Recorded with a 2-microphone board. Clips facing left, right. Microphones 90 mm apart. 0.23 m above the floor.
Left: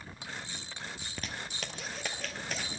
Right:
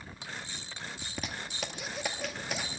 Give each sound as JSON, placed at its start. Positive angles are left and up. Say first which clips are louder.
{"t": 1.0, "sound": "a zipper", "louder": "right 2 dB", "side_deg": -5, "distance_m": 1.0}